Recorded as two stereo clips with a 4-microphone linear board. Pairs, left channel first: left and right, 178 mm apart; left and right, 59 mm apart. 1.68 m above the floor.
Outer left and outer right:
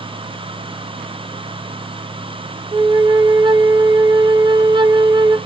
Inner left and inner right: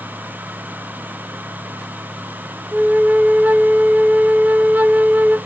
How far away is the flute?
About 0.6 m.